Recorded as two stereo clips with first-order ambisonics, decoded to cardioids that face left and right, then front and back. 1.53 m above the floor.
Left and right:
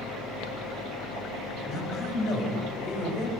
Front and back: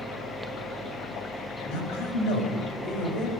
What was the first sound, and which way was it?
A man speaking, 35° left.